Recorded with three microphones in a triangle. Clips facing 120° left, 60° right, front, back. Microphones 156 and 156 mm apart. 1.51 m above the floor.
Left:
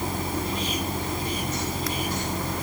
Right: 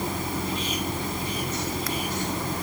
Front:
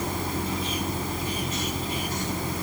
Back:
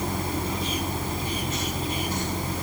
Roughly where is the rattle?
I don't hear a rattle.